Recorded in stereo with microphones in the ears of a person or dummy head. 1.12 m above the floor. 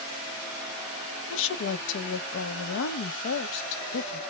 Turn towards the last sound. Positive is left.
turn(degrees=65)  # may be behind; listen again after turning